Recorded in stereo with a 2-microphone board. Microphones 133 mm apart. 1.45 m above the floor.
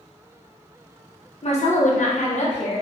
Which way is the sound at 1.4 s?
55° left (ahead or behind).